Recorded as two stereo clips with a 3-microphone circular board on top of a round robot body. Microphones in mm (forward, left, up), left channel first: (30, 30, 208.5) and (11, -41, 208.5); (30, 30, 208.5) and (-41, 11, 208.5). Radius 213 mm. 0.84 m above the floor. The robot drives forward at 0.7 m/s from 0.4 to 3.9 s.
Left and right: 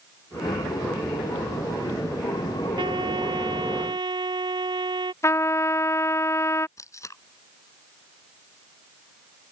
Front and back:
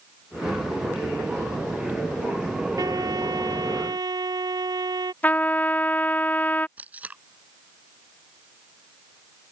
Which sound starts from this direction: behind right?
A trumpet, at 2.8 s.